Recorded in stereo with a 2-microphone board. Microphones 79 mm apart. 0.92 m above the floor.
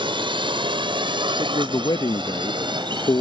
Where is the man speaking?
55° left (ahead or behind).